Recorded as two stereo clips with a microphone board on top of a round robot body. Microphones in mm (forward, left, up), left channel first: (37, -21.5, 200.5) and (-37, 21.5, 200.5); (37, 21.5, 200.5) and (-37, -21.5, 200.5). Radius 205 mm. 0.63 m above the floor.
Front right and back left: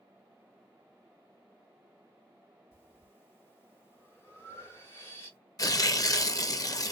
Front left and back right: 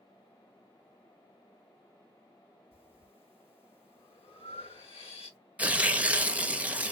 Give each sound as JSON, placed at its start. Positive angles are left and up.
{"t": 2.7, "sound": "breathing", "azimuth_deg": 35, "distance_m": 1.5}
{"t": 5.6, "sound": "tearing paper", "azimuth_deg": -75, "distance_m": 0.7}